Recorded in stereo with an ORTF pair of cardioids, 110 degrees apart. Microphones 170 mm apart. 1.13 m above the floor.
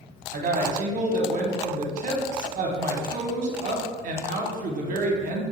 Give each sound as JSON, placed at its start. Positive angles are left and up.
{"t": 0.3, "sound": "a woman speaking", "azimuth_deg": -50, "distance_m": 0.7}